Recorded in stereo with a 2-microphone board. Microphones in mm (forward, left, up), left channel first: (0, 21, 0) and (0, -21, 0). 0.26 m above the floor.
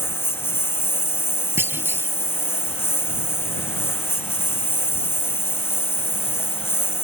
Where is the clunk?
65° right (ahead or behind).